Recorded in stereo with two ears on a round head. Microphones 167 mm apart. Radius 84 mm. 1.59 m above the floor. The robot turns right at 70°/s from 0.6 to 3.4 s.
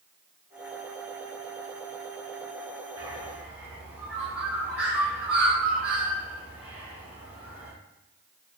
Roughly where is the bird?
Right.